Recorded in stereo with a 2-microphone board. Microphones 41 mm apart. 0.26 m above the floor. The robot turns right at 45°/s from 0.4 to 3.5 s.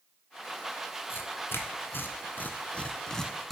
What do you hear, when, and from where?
1.1 s tearing paper: 70° left (ahead or behind), 0.9 m; by 3.5 s centre (ahead or behind), 0.9 m